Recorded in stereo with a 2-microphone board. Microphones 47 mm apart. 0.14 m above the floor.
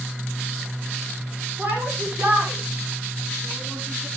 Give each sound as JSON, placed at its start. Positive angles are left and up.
{"t": 1.6, "sound": "a shout", "side_deg": -30, "distance_m": 8.5}